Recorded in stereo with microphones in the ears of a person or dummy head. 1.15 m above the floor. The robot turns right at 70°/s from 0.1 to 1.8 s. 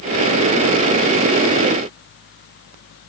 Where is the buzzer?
No buzzer in this recording.